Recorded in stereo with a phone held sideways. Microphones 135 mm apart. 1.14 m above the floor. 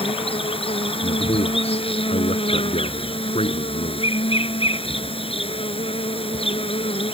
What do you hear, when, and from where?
0.0 s an insect: 45° left (ahead or behind)
1.0 s a man speaking: 50° left (ahead or behind)